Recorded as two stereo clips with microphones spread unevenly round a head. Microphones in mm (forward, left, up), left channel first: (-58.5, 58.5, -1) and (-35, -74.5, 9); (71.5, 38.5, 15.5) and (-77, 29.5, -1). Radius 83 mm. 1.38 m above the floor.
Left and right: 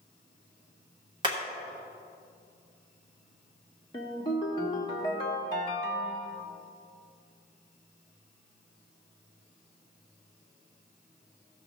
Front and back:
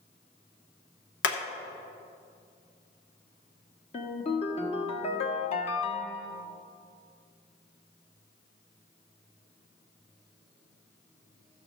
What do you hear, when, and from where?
1.2 s hammering: 15° right, 1.1 m
3.9 s a ringtone: 35° left, 1.1 m